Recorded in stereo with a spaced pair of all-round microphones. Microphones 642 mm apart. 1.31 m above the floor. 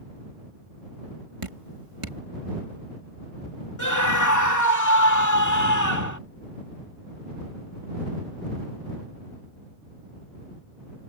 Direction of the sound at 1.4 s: 50° right (ahead or behind).